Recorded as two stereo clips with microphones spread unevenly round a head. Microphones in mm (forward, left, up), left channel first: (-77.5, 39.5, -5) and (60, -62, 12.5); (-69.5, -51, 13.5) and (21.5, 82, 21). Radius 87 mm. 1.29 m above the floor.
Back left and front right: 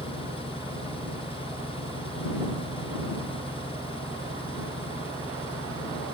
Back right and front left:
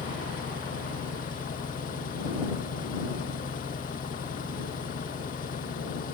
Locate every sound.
0.0 s an engine running: 160° right